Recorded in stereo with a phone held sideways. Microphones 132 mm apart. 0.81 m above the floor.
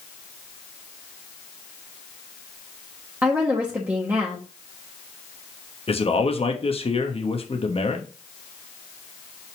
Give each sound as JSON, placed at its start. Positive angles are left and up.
{"t": 3.2, "sound": "a woman speaking", "side_deg": -15, "distance_m": 1.1}
{"t": 5.9, "sound": "a man speaking", "side_deg": 45, "distance_m": 1.1}